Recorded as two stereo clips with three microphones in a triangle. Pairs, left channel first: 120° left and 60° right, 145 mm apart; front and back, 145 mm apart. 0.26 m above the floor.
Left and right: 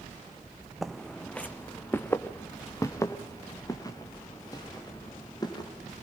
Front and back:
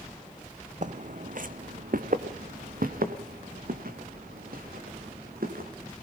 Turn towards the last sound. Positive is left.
turn(degrees=180)